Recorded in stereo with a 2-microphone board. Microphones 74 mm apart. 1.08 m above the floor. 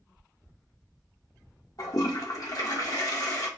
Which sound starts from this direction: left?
A toilet flushing, at 1.8 s.